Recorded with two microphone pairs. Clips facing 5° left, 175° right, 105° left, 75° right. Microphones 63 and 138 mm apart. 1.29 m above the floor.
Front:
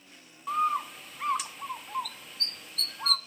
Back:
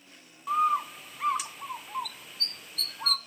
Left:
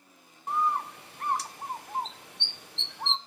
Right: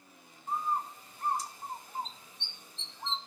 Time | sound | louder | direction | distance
0.5 | a bird | back 2 dB, left 5 dB | 95° left | 0.5 m